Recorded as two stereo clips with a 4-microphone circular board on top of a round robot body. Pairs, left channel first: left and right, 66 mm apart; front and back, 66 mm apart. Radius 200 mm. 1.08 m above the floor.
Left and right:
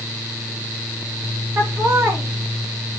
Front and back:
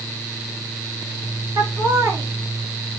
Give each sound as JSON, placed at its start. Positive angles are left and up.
{"t": 1.6, "sound": "laughter", "azimuth_deg": -140, "distance_m": 2.5}